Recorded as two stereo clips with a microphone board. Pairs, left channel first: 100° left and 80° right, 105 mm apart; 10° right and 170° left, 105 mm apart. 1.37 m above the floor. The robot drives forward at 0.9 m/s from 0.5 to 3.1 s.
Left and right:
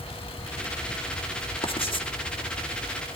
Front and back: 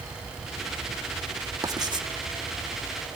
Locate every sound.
1.6 s writing: 120° left, 1.5 m; by 2.1 s 130° left, 1.7 m